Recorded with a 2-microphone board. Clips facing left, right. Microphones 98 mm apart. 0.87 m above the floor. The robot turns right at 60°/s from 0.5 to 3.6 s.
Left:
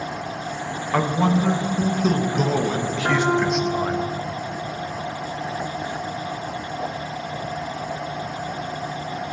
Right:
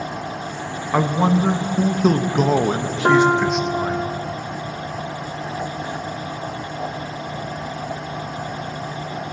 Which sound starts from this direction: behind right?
A piano, at 3.0 s.